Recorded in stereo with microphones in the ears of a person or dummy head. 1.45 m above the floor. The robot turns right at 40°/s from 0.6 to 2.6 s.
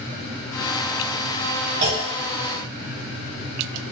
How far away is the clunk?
About 0.7 m.